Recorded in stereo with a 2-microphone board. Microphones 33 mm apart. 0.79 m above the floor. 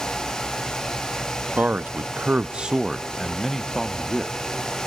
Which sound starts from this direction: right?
A man speaking, at 1.6 s.